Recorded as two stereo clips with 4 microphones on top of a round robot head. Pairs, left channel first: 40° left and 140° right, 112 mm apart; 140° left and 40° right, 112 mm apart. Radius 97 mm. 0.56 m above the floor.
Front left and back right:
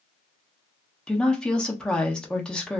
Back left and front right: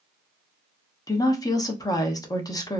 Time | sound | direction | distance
1.1 | a woman speaking | 120° left | 0.9 m